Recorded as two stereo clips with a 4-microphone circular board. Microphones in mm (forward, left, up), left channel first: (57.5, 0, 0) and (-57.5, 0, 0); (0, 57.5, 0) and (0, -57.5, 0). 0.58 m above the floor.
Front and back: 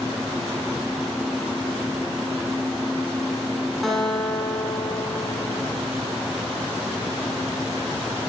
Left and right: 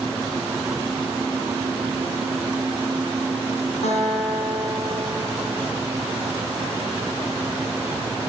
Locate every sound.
3.8 s a guitar: 90° left, 2 m